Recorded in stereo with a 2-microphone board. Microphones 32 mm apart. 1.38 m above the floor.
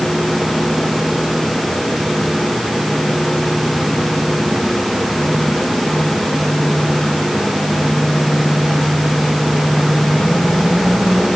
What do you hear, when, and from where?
Only background noise.